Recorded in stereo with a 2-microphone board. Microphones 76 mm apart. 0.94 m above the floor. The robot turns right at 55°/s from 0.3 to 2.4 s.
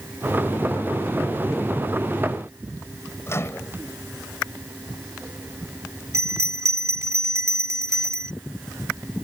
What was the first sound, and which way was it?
A microwave, 35° left (ahead or behind).